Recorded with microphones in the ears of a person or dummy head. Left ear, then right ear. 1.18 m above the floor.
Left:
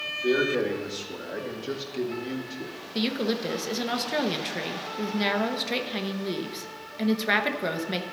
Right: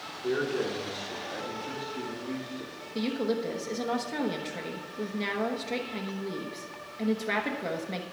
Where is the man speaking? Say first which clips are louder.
Left 5 dB; 50° left (ahead or behind), 2 m; by 2.7 s 85° left, 2.5 m.